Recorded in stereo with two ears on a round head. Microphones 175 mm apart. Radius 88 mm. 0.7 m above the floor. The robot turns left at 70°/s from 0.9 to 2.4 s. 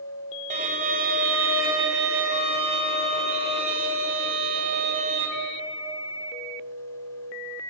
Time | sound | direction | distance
0.5 | a violin | 40° right | 2 m